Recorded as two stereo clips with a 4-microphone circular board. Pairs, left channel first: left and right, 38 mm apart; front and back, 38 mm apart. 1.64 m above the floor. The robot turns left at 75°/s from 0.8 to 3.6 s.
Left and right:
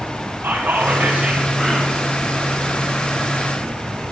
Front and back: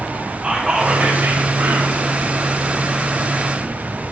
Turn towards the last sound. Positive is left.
turn(degrees=35)